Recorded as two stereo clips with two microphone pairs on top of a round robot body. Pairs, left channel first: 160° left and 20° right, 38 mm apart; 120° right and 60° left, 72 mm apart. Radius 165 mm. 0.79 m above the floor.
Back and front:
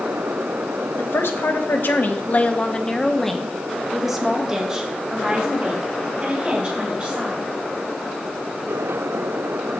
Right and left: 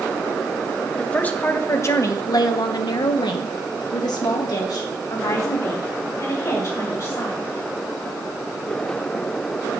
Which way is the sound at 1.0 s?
170° left.